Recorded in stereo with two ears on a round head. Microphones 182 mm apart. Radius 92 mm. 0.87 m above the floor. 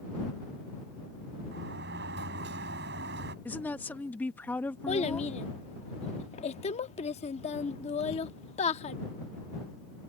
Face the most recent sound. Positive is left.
turn(degrees=30)  # may be behind; listen again after turning